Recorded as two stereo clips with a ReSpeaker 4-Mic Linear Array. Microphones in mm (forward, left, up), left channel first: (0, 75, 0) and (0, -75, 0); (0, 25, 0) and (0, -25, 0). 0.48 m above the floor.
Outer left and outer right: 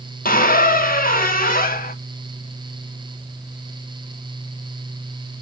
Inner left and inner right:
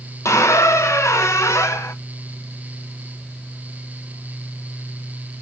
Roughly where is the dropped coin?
I don't hear a dropped coin.